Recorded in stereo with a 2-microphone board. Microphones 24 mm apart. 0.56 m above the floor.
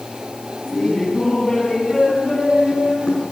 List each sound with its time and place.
0.7 s laughter: 10° left (ahead or behind), 4 m; by 3.2 s 30° left (ahead or behind), 6.5 m